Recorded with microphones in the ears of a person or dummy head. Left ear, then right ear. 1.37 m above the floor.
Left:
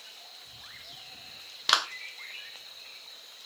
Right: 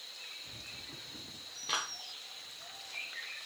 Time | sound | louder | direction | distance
1.7 | a clap | left 10 dB | 70° left (ahead or behind) | 0.6 m